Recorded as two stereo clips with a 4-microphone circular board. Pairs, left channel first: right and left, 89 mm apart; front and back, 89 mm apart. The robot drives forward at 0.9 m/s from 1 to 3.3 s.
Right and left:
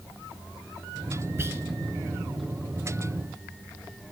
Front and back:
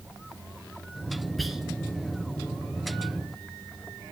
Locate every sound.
1.4 s whispering: 85° left, 1.3 m; by 1.6 s 105° left, 1.3 m